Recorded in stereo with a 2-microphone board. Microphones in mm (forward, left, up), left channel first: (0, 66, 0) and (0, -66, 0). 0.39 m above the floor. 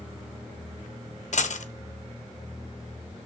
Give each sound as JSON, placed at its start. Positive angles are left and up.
{"t": 1.3, "sound": "a dropped coin", "side_deg": 60, "distance_m": 0.9}